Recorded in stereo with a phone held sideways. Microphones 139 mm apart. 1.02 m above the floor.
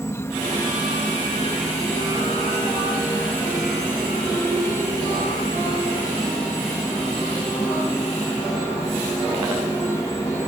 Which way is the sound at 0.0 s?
20° left (ahead or behind).